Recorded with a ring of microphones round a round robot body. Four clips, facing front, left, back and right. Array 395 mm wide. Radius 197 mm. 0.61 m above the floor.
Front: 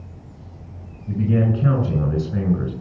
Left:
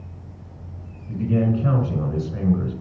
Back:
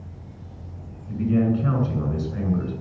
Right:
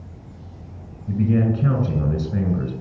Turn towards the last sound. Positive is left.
turn(degrees=-50)